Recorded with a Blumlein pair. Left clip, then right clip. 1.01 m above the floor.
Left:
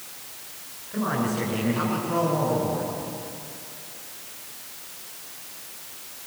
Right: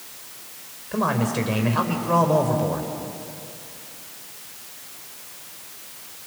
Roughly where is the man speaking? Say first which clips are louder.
Right 4 dB; ahead right.